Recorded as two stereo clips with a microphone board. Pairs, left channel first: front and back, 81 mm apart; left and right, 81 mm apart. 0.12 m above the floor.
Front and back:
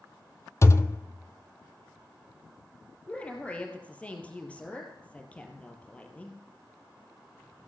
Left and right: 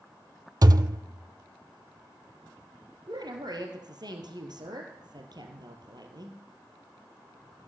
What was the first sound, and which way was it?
A thud, 50° right.